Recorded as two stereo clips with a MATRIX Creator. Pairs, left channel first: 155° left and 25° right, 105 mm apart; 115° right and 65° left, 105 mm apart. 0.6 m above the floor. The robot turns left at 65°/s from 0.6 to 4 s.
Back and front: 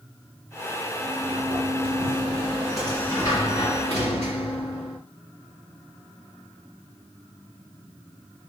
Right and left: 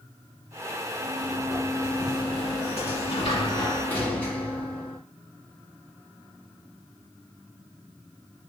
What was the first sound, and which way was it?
A sliding door, 5° left.